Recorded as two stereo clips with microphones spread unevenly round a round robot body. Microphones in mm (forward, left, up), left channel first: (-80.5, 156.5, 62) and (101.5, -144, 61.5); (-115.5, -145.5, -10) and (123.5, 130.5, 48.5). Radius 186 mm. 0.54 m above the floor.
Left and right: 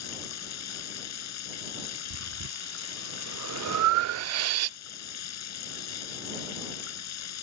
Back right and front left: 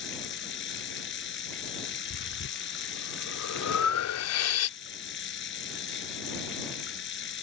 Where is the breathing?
95° right.